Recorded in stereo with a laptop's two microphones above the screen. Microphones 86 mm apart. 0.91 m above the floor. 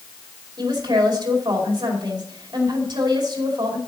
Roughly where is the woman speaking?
Right.